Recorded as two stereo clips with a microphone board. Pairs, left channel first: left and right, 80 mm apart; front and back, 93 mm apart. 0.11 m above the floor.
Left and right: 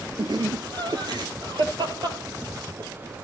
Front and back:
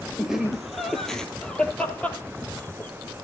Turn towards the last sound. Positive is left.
turn(degrees=-65)